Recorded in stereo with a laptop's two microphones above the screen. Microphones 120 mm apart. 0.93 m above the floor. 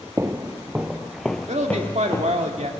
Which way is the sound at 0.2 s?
25° right (ahead or behind).